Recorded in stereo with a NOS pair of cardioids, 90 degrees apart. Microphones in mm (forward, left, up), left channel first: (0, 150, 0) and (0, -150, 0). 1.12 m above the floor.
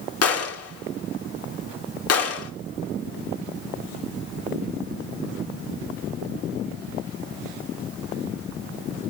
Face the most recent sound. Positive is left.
turn(degrees=50)